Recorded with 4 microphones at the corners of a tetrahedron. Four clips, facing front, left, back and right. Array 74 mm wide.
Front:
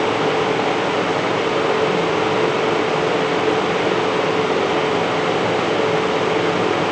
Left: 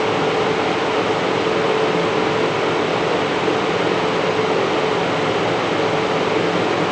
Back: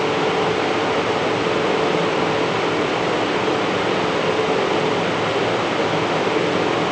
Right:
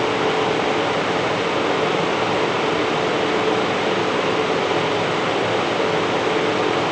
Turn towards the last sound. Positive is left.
No sound to turn to.